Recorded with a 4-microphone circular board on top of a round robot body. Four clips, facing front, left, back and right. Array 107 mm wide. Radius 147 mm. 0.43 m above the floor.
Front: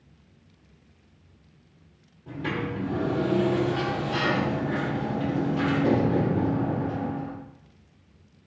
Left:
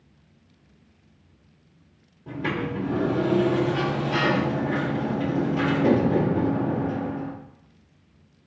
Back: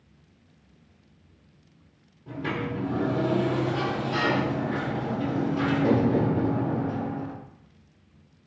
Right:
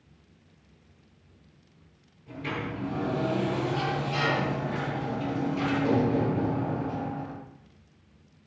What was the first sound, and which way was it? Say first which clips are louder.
A sliding door: left 6 dB, even; 95° left.